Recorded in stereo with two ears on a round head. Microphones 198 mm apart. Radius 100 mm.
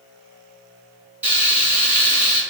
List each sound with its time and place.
1.2 s frying: 5° right (ahead or behind), 1.7 m